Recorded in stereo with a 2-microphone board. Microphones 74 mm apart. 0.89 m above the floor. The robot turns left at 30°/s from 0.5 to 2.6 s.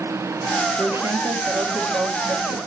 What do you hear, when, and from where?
0.8 s a woman speaking: 30° right, 1.6 m; by 2.6 s 85° right, 1.6 m